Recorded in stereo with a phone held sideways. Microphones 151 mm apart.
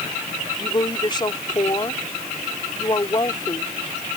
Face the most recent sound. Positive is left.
turn(degrees=30)  # may be behind; listen again after turning